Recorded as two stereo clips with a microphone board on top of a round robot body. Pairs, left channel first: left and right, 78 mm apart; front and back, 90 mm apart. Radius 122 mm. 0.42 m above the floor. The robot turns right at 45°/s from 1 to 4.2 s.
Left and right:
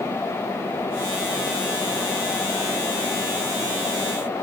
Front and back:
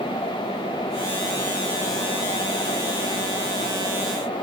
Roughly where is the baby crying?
No baby crying in this recording.